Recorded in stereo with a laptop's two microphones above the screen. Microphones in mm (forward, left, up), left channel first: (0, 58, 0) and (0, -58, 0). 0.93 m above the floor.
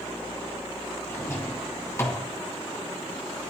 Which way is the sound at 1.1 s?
20° left (ahead or behind).